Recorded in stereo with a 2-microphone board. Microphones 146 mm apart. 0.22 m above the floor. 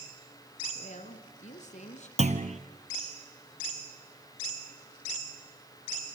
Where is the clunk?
55° right (ahead or behind), 1.4 m.